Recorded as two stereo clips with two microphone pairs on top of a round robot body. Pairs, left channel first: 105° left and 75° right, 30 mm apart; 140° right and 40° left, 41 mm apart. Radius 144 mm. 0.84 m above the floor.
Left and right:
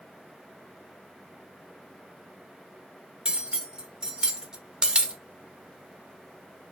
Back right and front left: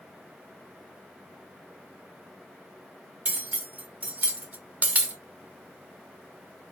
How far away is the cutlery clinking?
About 0.7 m.